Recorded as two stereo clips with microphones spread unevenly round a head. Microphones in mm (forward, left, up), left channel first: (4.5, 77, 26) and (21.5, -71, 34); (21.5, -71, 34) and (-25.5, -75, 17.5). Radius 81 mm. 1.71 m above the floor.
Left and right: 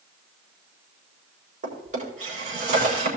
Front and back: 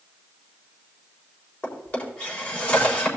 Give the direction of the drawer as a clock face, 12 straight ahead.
1 o'clock.